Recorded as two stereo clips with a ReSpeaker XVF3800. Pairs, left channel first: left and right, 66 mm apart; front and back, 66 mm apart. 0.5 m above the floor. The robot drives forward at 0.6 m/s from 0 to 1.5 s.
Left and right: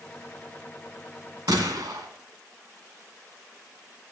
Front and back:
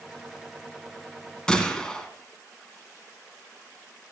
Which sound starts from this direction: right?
A gunshot, at 1.5 s.